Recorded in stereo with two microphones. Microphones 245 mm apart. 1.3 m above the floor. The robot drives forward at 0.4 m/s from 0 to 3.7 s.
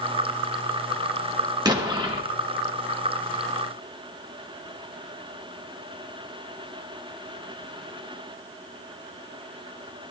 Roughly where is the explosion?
Centre.